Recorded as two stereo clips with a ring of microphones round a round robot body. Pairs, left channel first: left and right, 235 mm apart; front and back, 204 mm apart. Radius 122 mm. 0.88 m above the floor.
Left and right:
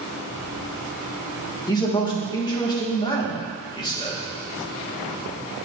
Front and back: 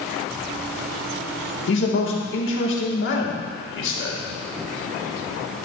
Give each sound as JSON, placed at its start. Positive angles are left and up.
{"t": 1.7, "sound": "a man speaking", "azimuth_deg": 20, "distance_m": 2.5}